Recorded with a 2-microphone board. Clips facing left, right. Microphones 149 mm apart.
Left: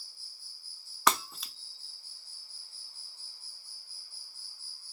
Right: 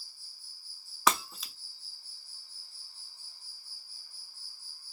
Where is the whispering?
I don't hear whispering.